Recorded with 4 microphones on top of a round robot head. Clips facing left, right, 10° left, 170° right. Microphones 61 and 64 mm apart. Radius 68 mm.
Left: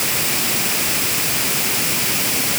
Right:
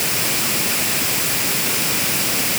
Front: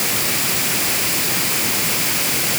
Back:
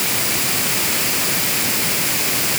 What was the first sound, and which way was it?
Only background noise.